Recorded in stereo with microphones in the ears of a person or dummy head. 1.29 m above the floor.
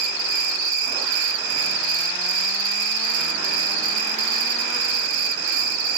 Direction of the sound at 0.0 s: 70° right (ahead or behind).